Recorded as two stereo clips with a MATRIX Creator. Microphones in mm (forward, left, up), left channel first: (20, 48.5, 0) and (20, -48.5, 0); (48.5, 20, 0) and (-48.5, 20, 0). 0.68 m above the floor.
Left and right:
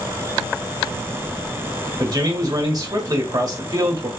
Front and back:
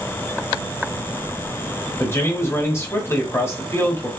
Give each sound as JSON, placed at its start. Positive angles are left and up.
{"t": 2.0, "sound": "a man speaking", "azimuth_deg": -55, "distance_m": 1.4}